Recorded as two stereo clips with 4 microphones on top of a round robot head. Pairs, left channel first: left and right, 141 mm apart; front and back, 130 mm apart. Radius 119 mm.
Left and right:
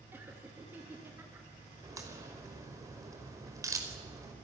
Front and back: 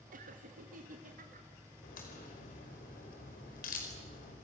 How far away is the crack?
About 4.5 m.